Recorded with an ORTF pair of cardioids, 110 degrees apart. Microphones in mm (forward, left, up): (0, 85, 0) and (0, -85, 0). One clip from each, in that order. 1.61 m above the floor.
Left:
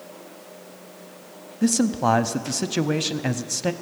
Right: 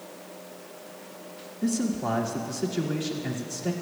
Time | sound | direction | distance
1.6 | a man speaking | 55° left | 0.6 m